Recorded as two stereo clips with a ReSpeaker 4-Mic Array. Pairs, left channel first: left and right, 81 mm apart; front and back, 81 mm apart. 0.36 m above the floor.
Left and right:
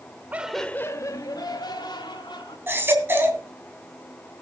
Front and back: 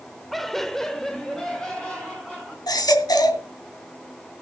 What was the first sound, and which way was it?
Laughter, 85° right.